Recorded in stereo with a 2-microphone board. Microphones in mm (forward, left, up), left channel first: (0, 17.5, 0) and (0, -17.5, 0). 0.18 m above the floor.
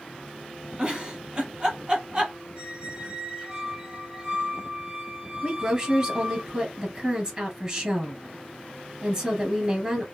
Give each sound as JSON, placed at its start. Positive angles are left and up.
{"t": 0.8, "sound": "a giggle", "side_deg": -25, "distance_m": 1.2}
{"t": 2.5, "sound": "a squeak", "side_deg": -30, "distance_m": 2.5}
{"t": 5.4, "sound": "a woman speaking", "side_deg": -30, "distance_m": 2.5}